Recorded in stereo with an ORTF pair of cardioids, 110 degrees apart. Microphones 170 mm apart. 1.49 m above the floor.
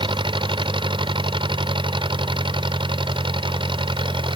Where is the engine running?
30° right.